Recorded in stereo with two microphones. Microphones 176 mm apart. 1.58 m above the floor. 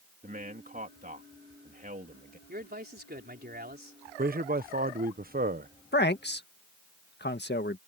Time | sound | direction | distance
0.2 | a man speaking | 55° right (ahead or behind) | ?
2.5 | a man speaking | 65° right (ahead or behind) | ?
4.2 | a man speaking | 60° right (ahead or behind) | ?
5.9 | a man speaking | 75° left (ahead or behind) | ?